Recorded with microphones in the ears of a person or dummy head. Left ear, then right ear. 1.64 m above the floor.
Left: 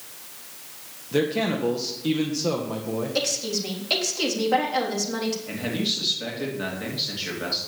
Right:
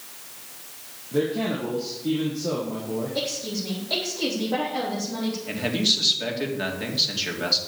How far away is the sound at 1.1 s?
About 1.6 m.